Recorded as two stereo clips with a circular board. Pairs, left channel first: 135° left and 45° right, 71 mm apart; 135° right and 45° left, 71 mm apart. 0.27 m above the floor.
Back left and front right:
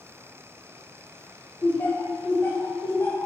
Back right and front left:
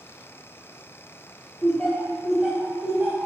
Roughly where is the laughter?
Behind.